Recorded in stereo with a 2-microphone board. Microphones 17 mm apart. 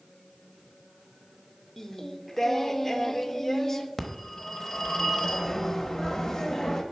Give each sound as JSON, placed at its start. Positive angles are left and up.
{"t": 1.8, "sound": "singing", "side_deg": 20, "distance_m": 0.6}
{"t": 4.0, "sound": "a phone ringing", "side_deg": 30, "distance_m": 0.9}